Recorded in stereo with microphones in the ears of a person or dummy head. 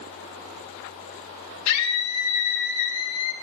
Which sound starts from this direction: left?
A scream, at 1.7 s.